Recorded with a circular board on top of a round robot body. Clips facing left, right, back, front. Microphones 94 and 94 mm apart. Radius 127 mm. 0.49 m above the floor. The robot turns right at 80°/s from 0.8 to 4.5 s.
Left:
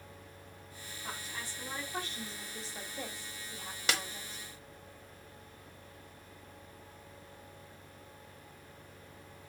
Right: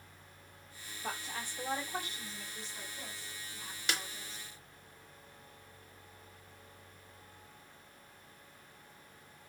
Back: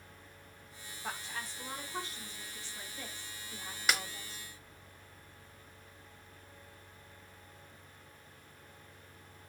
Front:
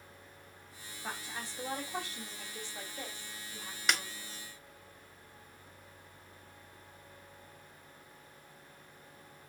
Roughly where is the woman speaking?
Right.